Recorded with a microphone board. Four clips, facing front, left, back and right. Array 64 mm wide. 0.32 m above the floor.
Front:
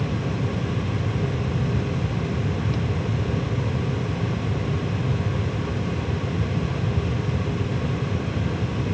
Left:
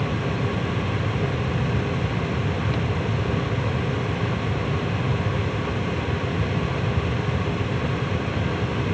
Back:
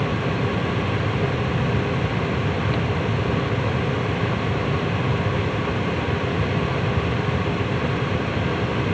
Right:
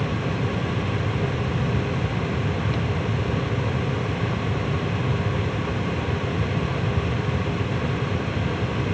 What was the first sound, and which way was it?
Only background noise.